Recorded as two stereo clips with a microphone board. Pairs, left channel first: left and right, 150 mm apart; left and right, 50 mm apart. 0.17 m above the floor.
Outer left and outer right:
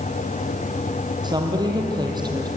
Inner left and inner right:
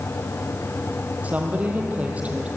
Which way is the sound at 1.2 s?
30° right (ahead or behind).